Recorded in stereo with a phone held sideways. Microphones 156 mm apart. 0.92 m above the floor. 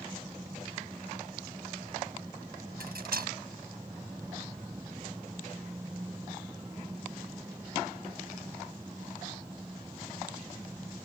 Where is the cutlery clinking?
85° right.